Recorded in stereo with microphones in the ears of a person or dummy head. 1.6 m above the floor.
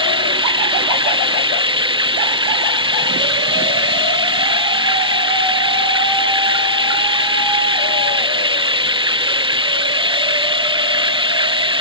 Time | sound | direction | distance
0.0 | running water | 25° right (ahead or behind) | ?